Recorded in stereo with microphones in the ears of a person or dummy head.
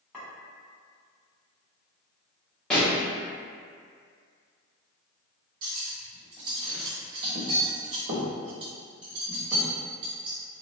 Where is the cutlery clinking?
30° right (ahead or behind), 1.0 m.